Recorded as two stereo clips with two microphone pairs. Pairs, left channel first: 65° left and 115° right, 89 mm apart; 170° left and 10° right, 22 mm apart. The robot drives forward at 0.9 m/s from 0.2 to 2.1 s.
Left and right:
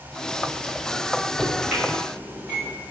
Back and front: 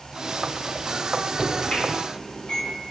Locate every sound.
1.4 s a microwave: 165° left, 1.2 m; by 2.8 s 170° left, 1.9 m